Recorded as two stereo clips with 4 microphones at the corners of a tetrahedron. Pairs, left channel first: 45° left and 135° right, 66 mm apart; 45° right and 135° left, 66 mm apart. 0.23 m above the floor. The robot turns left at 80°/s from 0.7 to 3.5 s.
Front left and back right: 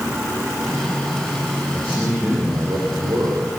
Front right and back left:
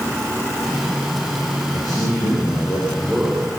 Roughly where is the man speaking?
Ahead.